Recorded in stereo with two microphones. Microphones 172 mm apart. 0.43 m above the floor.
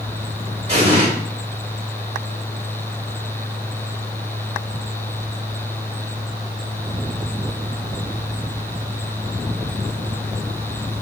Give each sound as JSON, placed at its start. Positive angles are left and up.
{"t": 0.7, "sound": "an explosion", "side_deg": -35, "distance_m": 1.7}